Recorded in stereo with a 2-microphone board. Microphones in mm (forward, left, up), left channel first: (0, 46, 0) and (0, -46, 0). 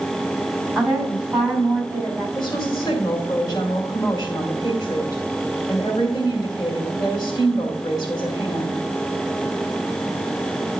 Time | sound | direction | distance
0.8 | a woman speaking | 10° right (ahead or behind) | 3.5 m
2.4 | a woman speaking | 50° left (ahead or behind) | 2 m